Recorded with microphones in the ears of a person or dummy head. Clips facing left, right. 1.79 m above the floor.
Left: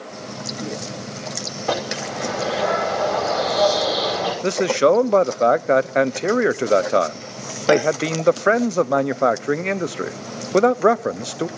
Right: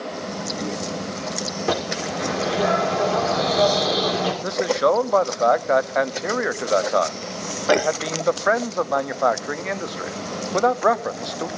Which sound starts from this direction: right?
A bird, at 1.7 s.